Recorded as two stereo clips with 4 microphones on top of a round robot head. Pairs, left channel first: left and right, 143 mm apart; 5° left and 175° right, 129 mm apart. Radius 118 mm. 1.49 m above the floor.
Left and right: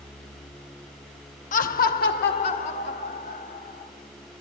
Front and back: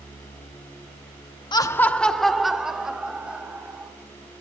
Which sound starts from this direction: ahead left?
Laughter, at 1.5 s.